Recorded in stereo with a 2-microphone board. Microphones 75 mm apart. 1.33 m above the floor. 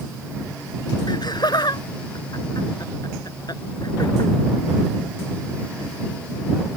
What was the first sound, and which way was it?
Laughter, 70° left (ahead or behind).